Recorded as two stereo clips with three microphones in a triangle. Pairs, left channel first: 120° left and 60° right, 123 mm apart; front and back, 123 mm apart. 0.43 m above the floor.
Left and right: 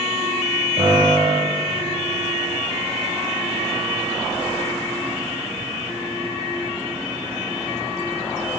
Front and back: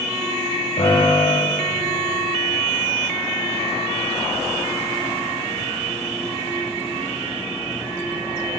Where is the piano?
25° right, 8.5 m.